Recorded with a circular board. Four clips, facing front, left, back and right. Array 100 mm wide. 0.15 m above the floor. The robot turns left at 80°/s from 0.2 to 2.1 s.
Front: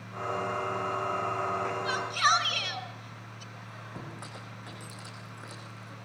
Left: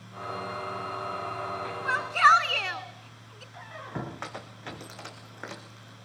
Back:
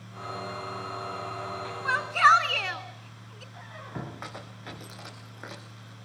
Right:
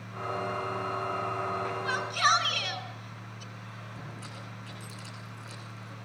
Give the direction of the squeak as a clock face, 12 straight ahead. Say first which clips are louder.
Left 7 dB, back 6 dB; 8 o'clock.